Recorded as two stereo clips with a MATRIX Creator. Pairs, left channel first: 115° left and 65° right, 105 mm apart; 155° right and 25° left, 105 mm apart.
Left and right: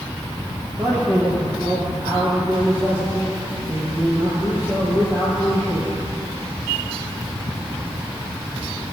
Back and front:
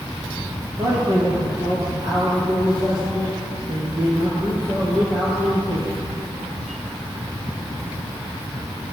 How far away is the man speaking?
About 2.5 m.